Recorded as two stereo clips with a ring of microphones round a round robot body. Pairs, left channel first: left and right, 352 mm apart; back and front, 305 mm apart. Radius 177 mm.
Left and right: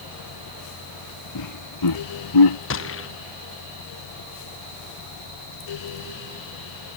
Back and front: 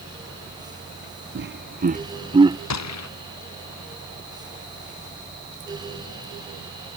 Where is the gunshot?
145° left.